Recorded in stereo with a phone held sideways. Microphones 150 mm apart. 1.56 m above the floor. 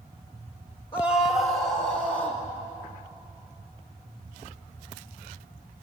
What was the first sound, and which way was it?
A scream, 35° left (ahead or behind).